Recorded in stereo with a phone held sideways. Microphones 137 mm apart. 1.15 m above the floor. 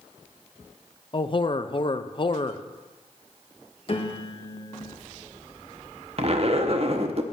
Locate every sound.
1.1 s a man speaking: 35° left (ahead or behind), 0.6 m
3.9 s a piano: 40° left (ahead or behind), 1.3 m
6.2 s a zipper: 45° right (ahead or behind), 0.8 m